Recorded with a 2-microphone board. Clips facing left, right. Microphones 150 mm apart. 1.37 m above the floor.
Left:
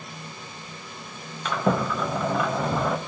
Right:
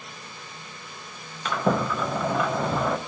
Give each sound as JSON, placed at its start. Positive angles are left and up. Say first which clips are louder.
{"t": 1.4, "sound": "a sliding door", "louder": "even", "side_deg": 0, "distance_m": 0.6}